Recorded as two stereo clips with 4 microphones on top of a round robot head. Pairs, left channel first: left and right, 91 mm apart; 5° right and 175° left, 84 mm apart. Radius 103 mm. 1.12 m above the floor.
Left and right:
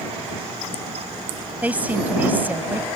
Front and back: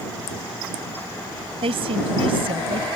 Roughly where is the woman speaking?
Behind.